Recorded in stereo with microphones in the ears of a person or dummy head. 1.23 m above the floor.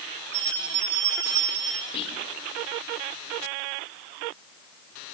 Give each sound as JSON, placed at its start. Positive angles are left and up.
{"t": 0.3, "sound": "a bell", "side_deg": -75, "distance_m": 4.0}
{"t": 1.9, "sound": "whispering", "side_deg": 30, "distance_m": 2.5}